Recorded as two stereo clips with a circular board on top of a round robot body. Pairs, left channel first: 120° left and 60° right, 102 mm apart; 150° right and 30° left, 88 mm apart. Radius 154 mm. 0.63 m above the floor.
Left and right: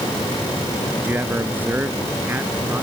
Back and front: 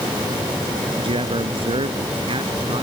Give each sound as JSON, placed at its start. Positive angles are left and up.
{"t": 1.0, "sound": "a man speaking", "azimuth_deg": 10}